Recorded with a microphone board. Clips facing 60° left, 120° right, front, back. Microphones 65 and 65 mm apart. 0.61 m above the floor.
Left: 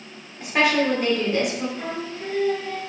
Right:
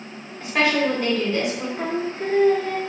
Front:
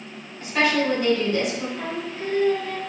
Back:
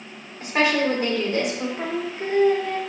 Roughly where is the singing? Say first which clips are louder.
Right 5 dB, back 2 dB; behind right.